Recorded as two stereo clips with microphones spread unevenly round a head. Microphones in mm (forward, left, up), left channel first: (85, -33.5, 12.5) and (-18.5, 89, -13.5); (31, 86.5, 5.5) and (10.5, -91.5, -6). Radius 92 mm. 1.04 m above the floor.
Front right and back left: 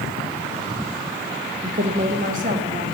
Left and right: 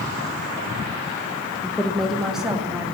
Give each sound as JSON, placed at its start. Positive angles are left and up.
{"t": 1.6, "sound": "a woman speaking", "azimuth_deg": 165, "distance_m": 0.9}